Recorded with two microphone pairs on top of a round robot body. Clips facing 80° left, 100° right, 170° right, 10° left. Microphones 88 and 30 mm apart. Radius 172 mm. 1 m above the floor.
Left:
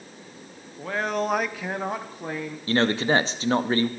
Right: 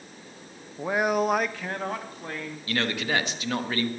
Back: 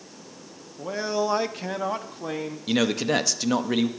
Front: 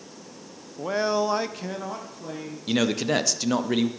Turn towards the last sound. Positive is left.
turn(degrees=120)